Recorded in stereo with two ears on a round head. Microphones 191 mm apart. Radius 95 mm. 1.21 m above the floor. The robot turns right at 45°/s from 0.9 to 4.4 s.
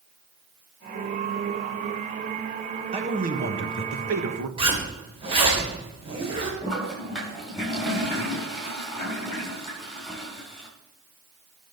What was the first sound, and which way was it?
A man speaking, 150° right.